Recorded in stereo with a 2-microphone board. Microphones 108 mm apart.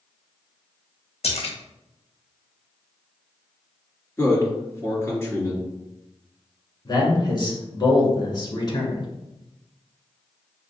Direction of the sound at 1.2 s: 75° left (ahead or behind).